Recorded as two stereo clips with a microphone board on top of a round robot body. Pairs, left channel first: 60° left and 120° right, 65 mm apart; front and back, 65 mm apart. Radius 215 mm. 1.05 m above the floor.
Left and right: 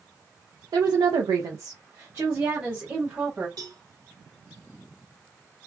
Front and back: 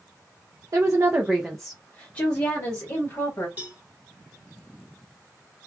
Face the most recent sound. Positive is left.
turn(degrees=-115)